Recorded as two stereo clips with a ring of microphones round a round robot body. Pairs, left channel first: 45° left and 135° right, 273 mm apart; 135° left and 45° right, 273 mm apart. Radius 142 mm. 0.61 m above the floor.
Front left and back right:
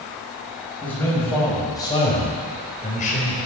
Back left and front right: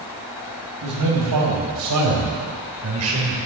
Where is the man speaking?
40° right, 4.5 m; by 3.4 s 10° right, 3 m.